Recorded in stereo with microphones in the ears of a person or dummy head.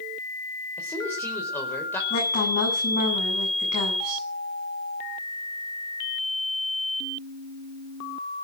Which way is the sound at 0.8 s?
15° left (ahead or behind).